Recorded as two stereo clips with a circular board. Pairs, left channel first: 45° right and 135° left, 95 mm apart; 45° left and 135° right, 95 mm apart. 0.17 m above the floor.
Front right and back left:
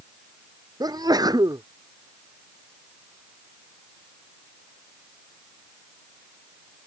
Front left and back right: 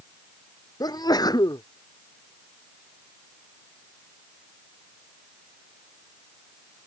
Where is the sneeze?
90° left.